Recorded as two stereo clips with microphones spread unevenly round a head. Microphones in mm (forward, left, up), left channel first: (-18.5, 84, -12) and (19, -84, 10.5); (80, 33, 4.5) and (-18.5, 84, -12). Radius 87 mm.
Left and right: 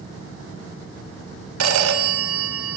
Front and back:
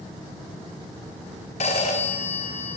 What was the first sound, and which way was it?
A phone ringing, 85° right.